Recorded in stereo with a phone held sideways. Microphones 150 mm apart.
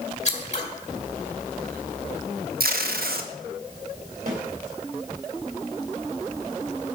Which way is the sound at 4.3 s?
70° right (ahead or behind).